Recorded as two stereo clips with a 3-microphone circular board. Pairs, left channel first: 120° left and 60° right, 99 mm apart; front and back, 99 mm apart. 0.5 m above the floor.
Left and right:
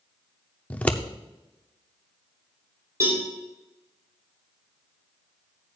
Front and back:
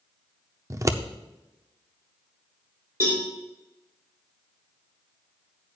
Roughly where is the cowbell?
Behind right.